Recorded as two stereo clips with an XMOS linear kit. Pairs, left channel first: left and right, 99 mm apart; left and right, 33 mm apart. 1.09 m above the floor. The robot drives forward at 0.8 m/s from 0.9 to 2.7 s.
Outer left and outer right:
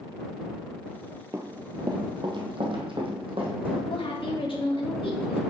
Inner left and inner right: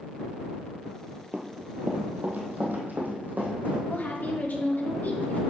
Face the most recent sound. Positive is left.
turn(degrees=65)  # may be behind; listen again after turning